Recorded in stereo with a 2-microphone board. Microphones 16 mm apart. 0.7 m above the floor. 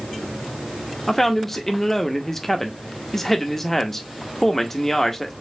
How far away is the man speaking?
About 0.7 m.